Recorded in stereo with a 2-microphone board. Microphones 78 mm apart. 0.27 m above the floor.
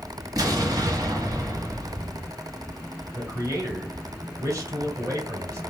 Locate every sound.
0.4 s an explosion: 50° right (ahead or behind), 1.0 m
3.1 s a man speaking: 40° right (ahead or behind), 2.0 m